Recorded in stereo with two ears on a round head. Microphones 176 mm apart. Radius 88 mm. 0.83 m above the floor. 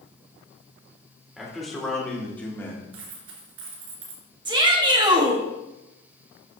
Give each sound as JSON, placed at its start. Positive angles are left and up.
{"t": 1.4, "sound": "a man speaking", "side_deg": 0, "distance_m": 2.5}
{"t": 2.9, "sound": "a dropped coin", "side_deg": -75, "distance_m": 2.5}
{"t": 4.5, "sound": "a shout", "side_deg": -20, "distance_m": 1.5}